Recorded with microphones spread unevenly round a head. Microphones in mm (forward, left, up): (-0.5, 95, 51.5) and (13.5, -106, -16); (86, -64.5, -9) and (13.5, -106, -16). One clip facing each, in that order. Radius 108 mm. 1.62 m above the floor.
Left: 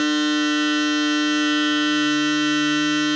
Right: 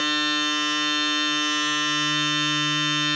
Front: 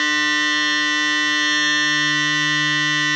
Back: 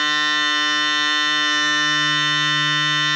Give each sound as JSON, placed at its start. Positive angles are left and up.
{"t": 0.0, "sound": "a machine running", "azimuth_deg": 150, "distance_m": 0.7}